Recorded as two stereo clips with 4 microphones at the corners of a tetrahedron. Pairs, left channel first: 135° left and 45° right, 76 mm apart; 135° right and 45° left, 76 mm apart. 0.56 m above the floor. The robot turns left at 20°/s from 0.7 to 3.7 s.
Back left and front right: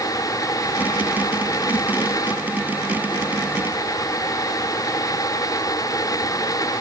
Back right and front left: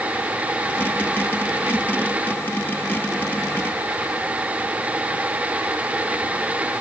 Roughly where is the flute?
No flute in this recording.